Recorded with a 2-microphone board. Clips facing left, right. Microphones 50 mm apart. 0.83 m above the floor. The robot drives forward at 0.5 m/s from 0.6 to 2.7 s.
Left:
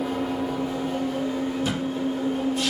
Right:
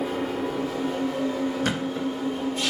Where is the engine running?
40° right (ahead or behind), 3.5 m; by 2.7 s 30° right (ahead or behind), 4 m.